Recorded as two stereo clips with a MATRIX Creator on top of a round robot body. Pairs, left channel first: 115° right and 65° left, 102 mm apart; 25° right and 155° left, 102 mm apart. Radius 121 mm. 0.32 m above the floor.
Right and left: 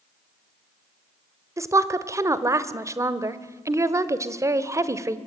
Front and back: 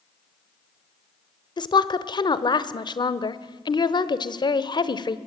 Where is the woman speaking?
10° left, 1.4 m.